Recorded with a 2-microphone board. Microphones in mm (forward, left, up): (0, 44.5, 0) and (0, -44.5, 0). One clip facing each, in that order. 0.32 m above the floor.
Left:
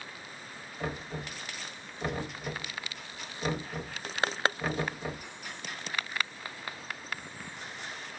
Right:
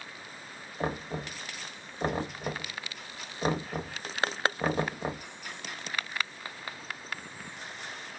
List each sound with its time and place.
0.8 s knocking: 40° right (ahead or behind), 0.6 m